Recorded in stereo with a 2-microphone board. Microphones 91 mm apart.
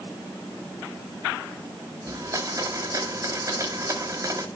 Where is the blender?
40° right (ahead or behind), 1.8 m.